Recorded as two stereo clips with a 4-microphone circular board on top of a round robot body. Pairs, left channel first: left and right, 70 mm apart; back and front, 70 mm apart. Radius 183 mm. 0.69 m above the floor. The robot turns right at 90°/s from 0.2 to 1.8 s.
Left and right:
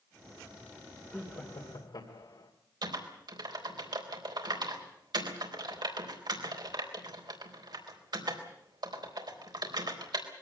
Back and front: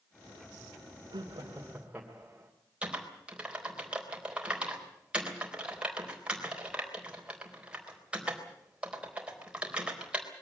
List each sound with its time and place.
1.1 s laughter: 15° left, 2.5 m; by 2.5 s 80° left, 2.5 m
2.8 s typing on a keyboard: 75° right, 4 m